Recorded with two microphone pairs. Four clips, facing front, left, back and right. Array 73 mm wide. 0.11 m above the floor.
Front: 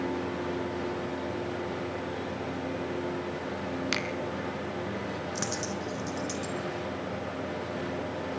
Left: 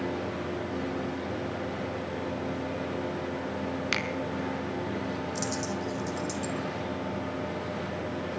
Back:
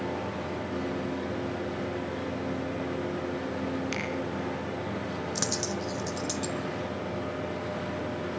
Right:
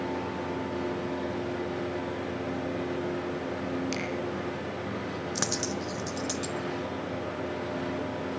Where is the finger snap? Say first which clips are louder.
Left 2 dB, front 1 dB; 55° left, 3 m.